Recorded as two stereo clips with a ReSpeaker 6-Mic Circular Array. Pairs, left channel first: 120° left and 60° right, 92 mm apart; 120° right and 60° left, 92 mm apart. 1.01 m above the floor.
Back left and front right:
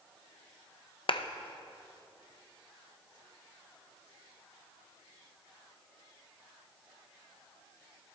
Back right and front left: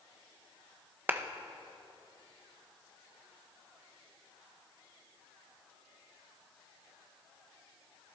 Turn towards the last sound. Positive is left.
turn(degrees=125)